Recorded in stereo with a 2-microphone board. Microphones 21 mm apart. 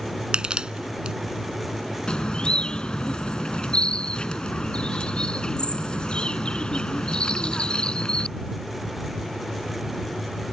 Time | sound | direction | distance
0.3 | crushing | 45° right (ahead or behind) | ?
2.1 | a bird | 45° left (ahead or behind) | ?